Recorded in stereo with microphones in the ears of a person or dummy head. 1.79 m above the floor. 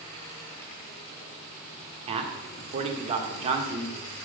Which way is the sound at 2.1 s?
30° right (ahead or behind).